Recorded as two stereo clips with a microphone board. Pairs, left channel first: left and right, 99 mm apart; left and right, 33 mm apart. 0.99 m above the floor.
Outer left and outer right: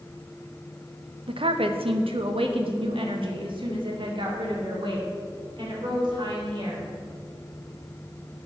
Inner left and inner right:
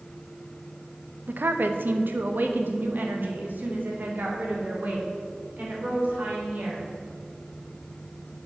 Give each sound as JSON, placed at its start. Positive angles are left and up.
{"t": 1.3, "sound": "a woman speaking", "side_deg": -60, "distance_m": 0.8}